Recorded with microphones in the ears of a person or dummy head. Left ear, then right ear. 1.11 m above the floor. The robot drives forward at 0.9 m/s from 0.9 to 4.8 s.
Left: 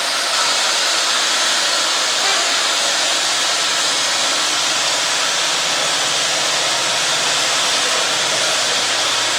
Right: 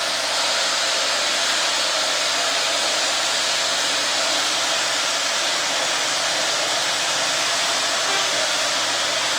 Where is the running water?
60° left (ahead or behind), 2.5 m; by 9.4 s 25° left (ahead or behind), 5.5 m.